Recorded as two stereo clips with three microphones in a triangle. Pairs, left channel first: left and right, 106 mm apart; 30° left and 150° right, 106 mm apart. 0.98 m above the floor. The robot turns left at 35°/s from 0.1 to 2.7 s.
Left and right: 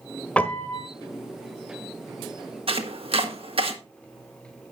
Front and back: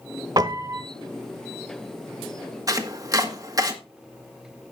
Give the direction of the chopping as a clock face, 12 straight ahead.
3 o'clock.